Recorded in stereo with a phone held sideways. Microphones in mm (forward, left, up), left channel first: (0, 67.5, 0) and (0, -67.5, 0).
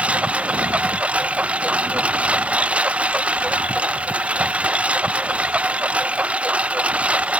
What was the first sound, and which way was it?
A lawn mower, 10° right (ahead or behind).